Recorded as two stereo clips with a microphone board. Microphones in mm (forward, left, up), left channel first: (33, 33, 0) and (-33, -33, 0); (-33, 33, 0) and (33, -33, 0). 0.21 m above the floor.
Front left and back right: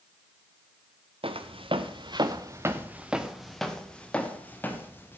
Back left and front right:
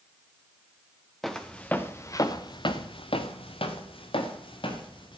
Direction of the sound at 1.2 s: 135° right.